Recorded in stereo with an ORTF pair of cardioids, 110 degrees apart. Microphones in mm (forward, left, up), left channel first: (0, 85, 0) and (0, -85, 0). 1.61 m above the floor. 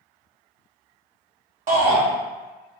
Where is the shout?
50° right, 0.8 m.